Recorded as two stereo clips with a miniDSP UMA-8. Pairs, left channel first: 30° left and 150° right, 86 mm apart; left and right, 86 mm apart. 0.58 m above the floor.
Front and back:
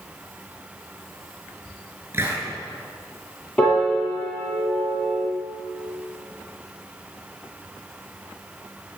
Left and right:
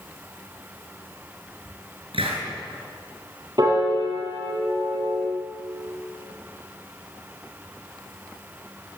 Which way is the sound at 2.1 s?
85° right.